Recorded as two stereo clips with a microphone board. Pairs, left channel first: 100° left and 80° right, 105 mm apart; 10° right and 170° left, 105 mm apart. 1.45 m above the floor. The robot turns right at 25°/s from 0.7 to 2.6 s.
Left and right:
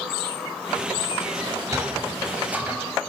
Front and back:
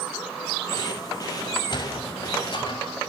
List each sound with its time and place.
1.5 s a sliding door: 35° right, 1.8 m; by 2.9 s 5° right, 1.8 m